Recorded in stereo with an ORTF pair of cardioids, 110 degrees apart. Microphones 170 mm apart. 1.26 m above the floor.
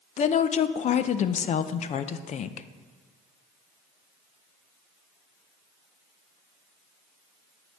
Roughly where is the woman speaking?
Ahead left.